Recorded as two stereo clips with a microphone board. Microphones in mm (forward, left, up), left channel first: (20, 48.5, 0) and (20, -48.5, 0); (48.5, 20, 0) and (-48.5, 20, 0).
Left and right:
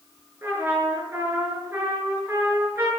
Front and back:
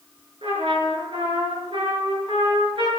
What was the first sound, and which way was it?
A trumpet, 160° right.